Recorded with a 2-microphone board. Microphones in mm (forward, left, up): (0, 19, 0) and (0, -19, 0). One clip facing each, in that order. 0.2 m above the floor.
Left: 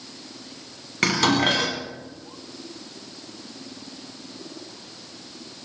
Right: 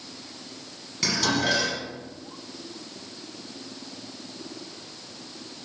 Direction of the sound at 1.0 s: 45° left (ahead or behind).